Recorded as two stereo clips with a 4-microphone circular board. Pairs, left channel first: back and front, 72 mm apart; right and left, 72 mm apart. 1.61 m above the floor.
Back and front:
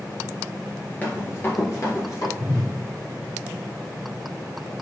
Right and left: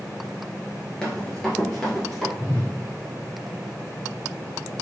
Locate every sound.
1.0 s running footsteps: 150° right, 1.7 m; by 2.3 s 170° right, 2.5 m
2.4 s a whoosh: 40° right, 2.5 m